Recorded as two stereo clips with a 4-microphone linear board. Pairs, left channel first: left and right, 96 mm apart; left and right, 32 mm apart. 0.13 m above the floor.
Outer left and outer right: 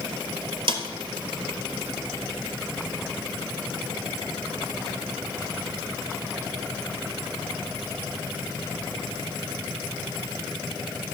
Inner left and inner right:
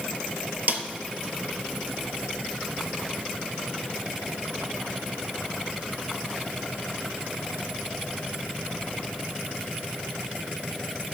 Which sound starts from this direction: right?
A snare drum, at 0.7 s.